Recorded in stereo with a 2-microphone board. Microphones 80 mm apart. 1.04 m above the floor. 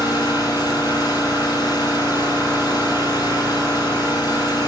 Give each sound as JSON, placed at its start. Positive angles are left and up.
{"t": 0.0, "sound": "an engine running", "side_deg": 65, "distance_m": 7.5}